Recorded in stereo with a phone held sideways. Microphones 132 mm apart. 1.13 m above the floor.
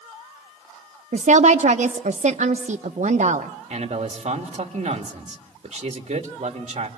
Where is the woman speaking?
65° right (ahead or behind), 0.7 m.